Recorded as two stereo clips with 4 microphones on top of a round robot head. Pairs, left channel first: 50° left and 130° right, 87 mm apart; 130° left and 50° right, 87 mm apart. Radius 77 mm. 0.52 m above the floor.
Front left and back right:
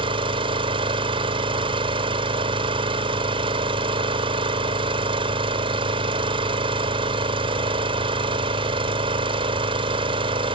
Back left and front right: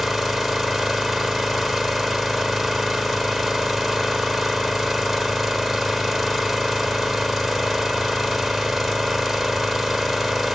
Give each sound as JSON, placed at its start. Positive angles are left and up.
{"t": 0.0, "sound": "an engine running", "azimuth_deg": -135, "distance_m": 1.3}